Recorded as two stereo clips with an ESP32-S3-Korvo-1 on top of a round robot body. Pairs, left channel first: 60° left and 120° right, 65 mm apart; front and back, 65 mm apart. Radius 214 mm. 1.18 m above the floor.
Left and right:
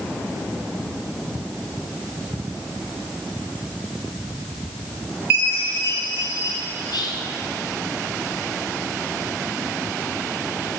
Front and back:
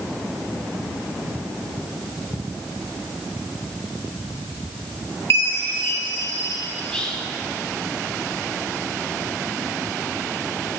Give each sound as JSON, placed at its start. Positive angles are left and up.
{"t": 5.3, "sound": "a chime", "azimuth_deg": -55, "distance_m": 1.0}
{"t": 6.8, "sound": "whispering", "azimuth_deg": 80, "distance_m": 0.9}